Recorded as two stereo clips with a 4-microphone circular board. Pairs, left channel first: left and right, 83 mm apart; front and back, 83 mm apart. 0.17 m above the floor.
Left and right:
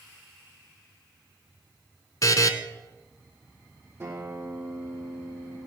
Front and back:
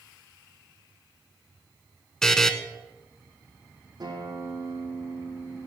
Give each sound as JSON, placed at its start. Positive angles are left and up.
{"t": 2.2, "sound": "a buzzer", "azimuth_deg": 80, "distance_m": 1.0}
{"t": 4.0, "sound": "a guitar", "azimuth_deg": -150, "distance_m": 7.5}